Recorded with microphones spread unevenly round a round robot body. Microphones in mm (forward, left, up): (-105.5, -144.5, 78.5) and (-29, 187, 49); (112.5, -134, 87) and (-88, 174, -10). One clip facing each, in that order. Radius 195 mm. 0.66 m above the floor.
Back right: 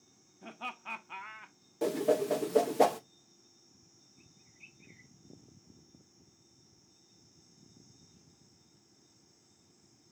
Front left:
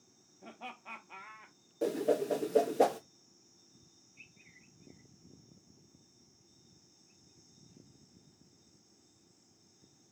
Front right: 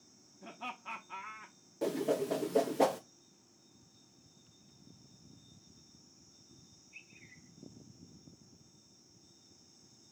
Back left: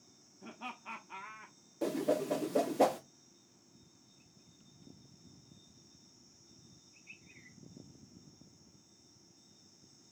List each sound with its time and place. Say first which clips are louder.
0.4 s laughter: back right 2 dB, even; 160° right, 0.8 m
1.8 s a whoosh: back right 1 dB, even; 175° right, 0.5 m